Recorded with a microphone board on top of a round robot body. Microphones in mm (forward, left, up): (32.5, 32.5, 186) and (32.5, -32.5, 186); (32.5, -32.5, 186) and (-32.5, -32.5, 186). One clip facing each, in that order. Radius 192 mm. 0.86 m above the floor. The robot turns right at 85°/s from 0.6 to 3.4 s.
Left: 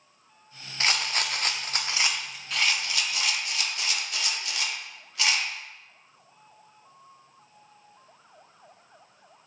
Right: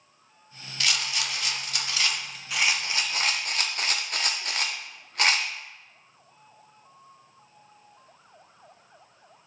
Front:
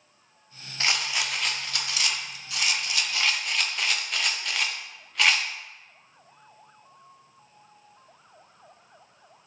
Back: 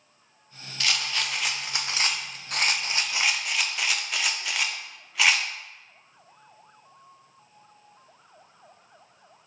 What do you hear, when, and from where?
0.8 s a rattle: 45° left, 0.5 m; by 5.5 s 95° right, 0.5 m